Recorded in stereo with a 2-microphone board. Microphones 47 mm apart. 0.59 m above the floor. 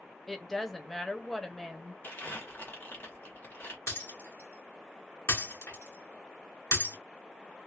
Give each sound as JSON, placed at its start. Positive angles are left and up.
{"t": 0.3, "sound": "a woman speaking", "side_deg": 5, "distance_m": 0.7}
{"t": 2.0, "sound": "crumpling", "side_deg": 50, "distance_m": 1.2}
{"t": 3.9, "sound": "breaking glass", "side_deg": 75, "distance_m": 1.8}